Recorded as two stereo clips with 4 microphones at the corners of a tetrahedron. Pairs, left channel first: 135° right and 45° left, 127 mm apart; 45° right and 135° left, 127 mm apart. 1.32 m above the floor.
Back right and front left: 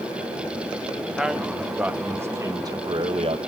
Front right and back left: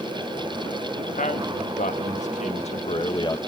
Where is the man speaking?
40° right, 1.9 m; by 3.4 s 10° left, 0.9 m.